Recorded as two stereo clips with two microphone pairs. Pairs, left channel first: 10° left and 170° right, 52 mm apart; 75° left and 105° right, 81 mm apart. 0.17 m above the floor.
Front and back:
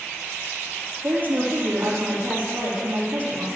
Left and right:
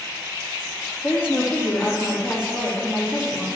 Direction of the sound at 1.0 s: 135° left.